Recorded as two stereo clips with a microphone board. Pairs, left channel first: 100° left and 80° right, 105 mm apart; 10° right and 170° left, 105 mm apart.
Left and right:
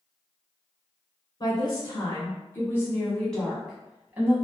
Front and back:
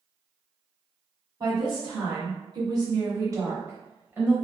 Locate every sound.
1.4 s a woman speaking: 135° left, 1.7 m; by 4.5 s 120° right, 1.1 m